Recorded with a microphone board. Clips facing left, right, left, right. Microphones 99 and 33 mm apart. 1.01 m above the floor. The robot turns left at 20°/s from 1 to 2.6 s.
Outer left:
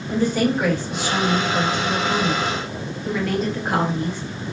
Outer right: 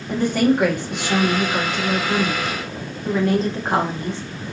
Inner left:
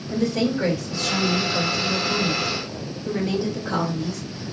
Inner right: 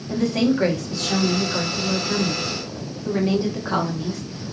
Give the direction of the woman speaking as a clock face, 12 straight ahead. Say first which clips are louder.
Outer right 2 dB, inner right 2 dB; 4 o'clock.